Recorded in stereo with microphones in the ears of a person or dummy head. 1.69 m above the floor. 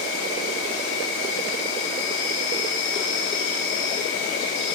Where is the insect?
80° left, 6.5 m.